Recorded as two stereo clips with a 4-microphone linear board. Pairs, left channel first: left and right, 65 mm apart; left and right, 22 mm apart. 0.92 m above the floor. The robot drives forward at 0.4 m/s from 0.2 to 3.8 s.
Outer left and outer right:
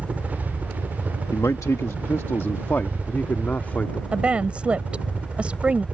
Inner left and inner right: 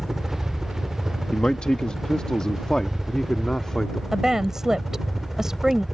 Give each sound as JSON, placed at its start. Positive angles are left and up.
{"t": 0.0, "sound": "a helicopter", "side_deg": -20}
{"t": 1.3, "sound": "a man speaking", "side_deg": 55}
{"t": 4.1, "sound": "a woman speaking", "side_deg": -20}